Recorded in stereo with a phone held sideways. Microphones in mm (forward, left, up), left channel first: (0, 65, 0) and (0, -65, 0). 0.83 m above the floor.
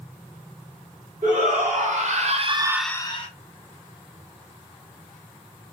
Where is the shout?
75° right (ahead or behind), 2 m; by 3.3 s 50° left (ahead or behind), 0.7 m.